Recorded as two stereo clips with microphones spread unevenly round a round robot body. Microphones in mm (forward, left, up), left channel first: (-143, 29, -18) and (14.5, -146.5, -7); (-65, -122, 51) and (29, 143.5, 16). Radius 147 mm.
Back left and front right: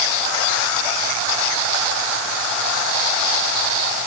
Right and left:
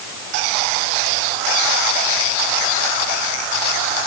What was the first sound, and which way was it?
Only background noise.